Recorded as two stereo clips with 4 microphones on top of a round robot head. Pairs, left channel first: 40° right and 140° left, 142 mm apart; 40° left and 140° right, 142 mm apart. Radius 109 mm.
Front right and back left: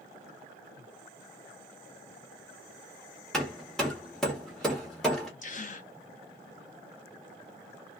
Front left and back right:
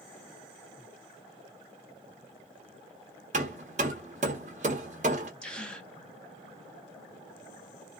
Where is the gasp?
45° right, 0.8 m.